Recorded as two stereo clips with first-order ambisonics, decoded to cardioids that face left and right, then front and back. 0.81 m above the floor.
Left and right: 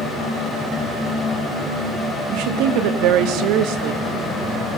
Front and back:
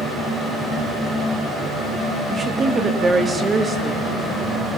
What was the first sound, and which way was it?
A woman speaking, 105° right.